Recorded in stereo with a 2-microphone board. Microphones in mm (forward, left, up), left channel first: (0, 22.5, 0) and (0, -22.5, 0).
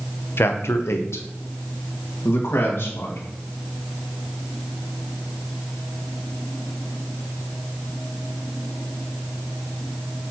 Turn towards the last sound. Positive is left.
turn(degrees=65)  # may be behind; listen again after turning